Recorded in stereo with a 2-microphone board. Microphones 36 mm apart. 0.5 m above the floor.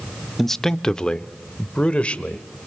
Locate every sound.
0.4 s a man speaking: 5° left (ahead or behind), 0.8 m; by 2.4 s 30° left (ahead or behind), 1.8 m